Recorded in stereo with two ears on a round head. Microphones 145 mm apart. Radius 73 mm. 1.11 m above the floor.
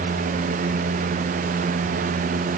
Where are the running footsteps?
I don't hear running footsteps.